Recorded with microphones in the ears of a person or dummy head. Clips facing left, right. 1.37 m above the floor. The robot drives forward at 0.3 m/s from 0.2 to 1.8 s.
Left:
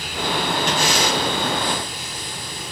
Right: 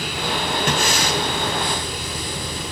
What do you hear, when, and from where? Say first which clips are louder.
0.7 s breathing: even; 45° right (ahead or behind), 1.2 m; by 1.2 s 40° right (ahead or behind), 1.3 m